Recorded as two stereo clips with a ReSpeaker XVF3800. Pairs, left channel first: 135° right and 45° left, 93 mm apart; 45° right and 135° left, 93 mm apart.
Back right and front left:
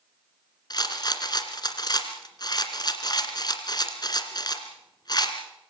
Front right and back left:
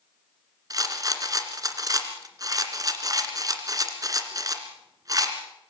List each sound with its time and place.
0.7 s a rattle: 175° right, 2 m